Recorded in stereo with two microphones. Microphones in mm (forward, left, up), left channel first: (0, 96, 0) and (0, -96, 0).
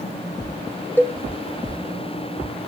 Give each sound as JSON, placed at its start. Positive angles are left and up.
{"t": 1.0, "sound": "a cowbell", "side_deg": 10, "distance_m": 0.7}